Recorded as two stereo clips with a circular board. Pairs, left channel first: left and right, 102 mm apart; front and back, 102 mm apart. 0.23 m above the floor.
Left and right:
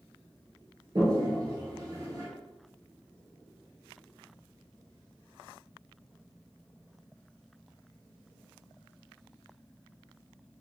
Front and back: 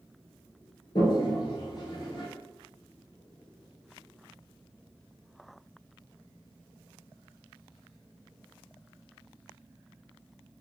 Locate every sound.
0.9 s a toilet flushing: 45° right, 0.8 m